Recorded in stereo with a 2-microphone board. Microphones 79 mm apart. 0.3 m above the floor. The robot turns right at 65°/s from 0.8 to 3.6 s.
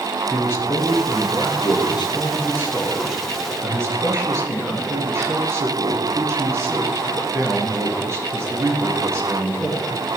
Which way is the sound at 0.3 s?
30° left.